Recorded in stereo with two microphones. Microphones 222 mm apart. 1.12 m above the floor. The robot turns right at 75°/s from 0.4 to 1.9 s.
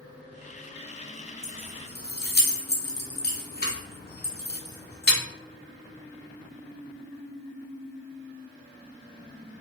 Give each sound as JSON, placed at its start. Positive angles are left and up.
{"t": 1.4, "sound": "keys jangling", "side_deg": 15, "distance_m": 0.6}